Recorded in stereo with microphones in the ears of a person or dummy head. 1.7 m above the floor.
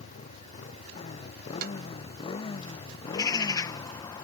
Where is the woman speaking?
I don't hear a woman speaking.